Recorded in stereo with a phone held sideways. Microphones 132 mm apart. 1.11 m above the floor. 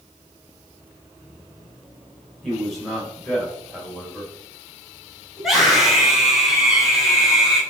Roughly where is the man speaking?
Centre.